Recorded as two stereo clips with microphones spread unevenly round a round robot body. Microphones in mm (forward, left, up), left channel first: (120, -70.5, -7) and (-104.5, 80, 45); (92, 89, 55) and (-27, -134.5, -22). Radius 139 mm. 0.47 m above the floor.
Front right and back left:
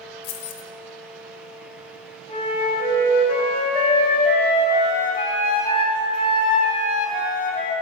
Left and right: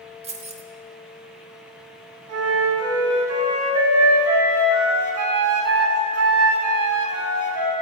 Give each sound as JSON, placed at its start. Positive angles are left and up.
{"t": 0.2, "sound": "keys jangling", "azimuth_deg": -60, "distance_m": 1.1}
{"t": 2.3, "sound": "a flute", "azimuth_deg": -105, "distance_m": 2.0}